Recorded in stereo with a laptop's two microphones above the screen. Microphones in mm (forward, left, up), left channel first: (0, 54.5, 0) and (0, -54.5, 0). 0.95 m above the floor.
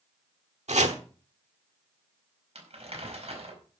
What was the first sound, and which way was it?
Chopping, 80° right.